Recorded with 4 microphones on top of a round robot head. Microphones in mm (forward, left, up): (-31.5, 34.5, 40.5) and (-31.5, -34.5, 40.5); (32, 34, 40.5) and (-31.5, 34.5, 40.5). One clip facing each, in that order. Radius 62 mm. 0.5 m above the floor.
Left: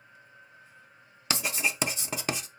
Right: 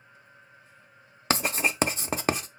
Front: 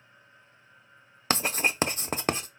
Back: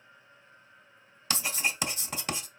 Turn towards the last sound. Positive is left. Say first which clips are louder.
# right 4 dB, front 5 dB
turn(degrees=-45)